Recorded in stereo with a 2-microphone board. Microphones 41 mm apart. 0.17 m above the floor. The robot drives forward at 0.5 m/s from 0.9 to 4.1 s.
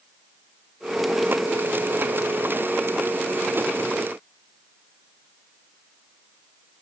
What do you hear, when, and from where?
Only background noise.